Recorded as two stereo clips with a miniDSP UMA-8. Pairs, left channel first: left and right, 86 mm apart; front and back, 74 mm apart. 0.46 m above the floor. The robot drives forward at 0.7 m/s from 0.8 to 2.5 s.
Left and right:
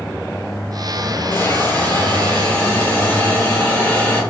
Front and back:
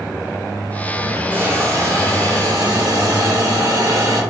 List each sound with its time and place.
1.3 s a hiss: 135° left, 0.7 m; by 4.2 s 165° left, 1.3 m